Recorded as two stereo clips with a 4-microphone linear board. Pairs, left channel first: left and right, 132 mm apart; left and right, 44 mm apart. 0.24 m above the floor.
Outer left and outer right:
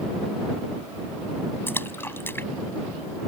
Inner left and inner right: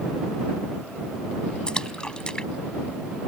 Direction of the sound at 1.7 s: 20° left (ahead or behind).